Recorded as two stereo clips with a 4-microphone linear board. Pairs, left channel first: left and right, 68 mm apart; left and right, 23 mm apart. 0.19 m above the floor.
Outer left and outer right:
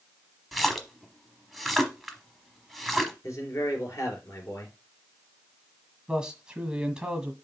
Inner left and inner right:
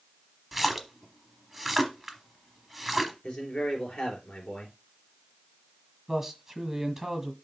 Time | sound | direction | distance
0.5 | a splash | centre (ahead or behind) | 1.0 m
3.2 | a man speaking | 50° left (ahead or behind) | 3.5 m
6.1 | a man speaking | 10° right (ahead or behind) | 1.4 m